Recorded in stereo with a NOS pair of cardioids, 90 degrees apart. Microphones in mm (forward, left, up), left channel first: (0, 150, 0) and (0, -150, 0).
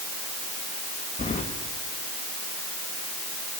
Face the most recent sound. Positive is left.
turn(degrees=25)